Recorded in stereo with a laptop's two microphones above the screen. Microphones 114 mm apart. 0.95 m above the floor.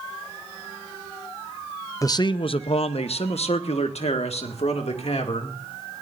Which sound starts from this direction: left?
A man speaking, at 2.0 s.